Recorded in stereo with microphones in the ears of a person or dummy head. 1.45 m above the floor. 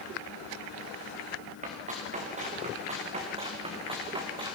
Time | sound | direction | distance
1.6 | running footsteps | 45° right (ahead or behind) | 6 m